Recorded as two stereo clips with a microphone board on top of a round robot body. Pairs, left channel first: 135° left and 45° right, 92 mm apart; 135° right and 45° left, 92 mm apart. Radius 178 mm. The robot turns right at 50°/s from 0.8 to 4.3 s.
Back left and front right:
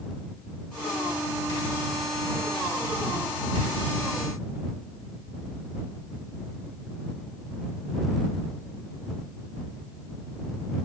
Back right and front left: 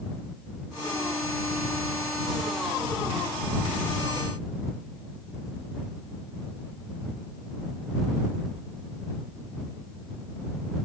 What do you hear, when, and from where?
Only background noise.